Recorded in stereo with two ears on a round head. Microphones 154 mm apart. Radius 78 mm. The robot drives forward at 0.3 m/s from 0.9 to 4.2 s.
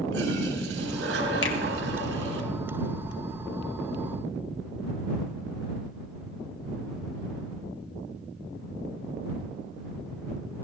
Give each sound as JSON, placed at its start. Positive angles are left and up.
{"t": 0.1, "sound": "a toilet flushing", "side_deg": -75, "distance_m": 4.0}
{"t": 1.4, "sound": "a finger snap", "side_deg": 75, "distance_m": 1.4}